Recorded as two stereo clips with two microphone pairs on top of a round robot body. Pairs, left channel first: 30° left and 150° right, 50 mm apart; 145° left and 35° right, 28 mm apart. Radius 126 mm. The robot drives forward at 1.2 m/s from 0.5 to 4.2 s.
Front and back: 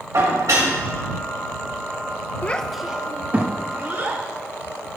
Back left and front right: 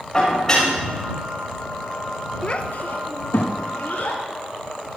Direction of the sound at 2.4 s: 85° left.